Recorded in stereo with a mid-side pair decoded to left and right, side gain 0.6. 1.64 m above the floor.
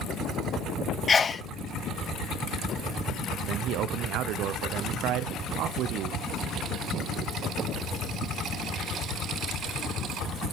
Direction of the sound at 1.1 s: 30° left.